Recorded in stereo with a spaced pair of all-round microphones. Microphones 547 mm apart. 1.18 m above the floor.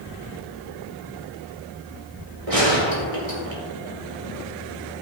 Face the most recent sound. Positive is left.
turn(degrees=-80)